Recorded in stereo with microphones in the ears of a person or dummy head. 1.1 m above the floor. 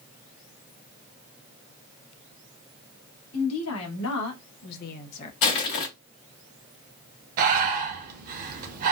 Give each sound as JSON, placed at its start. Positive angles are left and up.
{"t": 3.3, "sound": "a woman speaking", "side_deg": 85, "distance_m": 1.3}
{"t": 5.4, "sound": "crushing", "side_deg": 65, "distance_m": 1.5}
{"t": 7.4, "sound": "breathing", "side_deg": -50, "distance_m": 0.8}